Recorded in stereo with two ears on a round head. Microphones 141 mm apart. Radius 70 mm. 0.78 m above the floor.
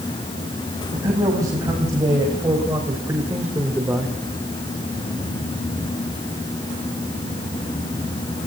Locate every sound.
0.9 s a man speaking: 20° right (ahead or behind), 5.5 m; by 4.2 s 5° right (ahead or behind), 2 m